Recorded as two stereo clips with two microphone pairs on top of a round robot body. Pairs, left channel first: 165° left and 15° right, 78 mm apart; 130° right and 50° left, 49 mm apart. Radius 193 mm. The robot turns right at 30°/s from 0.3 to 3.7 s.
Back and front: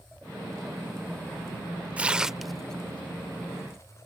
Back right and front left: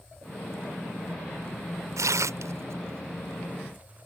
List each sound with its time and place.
2.0 s tearing paper: 60° left; by 4.1 s 110° left